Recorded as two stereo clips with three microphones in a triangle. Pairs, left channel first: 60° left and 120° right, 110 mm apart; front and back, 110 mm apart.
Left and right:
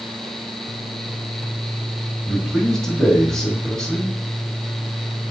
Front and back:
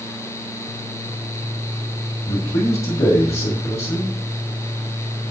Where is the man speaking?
25° right, 1.8 m.